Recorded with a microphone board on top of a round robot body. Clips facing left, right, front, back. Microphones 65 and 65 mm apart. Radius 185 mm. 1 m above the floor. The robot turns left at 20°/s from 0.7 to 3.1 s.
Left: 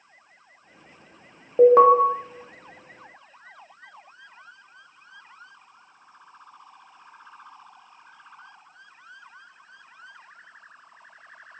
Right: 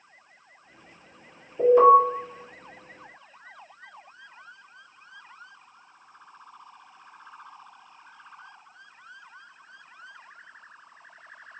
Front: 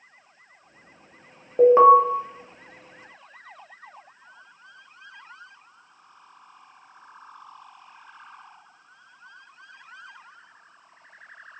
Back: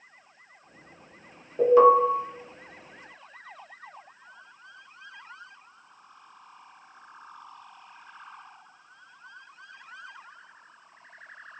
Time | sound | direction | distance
1.6 | an alarm | 60° left | 0.8 m